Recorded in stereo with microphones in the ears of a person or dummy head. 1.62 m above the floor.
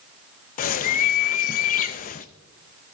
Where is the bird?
50° left (ahead or behind), 0.6 m.